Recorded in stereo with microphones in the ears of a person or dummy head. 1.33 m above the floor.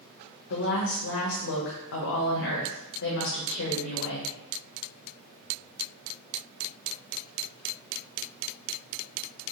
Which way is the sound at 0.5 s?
70° left (ahead or behind).